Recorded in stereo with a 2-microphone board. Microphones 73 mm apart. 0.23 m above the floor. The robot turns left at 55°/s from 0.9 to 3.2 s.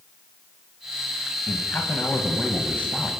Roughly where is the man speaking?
Left.